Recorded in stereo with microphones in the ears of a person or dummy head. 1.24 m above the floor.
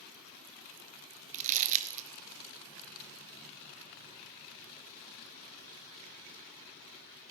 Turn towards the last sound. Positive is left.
turn(degrees=-40)  # may be behind; listen again after turning